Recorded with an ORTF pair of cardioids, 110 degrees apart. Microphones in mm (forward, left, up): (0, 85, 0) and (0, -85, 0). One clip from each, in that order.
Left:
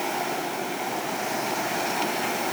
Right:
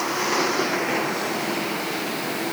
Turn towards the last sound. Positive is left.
No sound to turn to.